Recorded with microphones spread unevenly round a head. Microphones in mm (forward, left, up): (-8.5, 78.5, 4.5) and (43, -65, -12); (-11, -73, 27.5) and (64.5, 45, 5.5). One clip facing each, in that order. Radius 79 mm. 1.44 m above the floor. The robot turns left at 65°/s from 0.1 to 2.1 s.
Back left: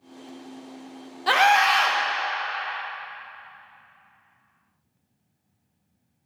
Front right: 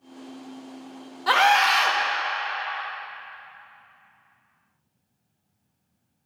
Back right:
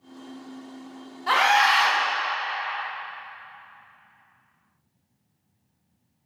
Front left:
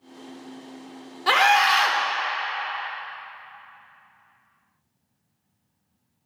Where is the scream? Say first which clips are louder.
Back left 1 dB, front left 1 dB; 50° left, 1.0 m; by 2.0 s straight ahead, 1.0 m.